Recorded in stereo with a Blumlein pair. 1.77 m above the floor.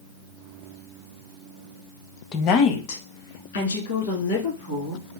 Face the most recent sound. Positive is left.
turn(degrees=70)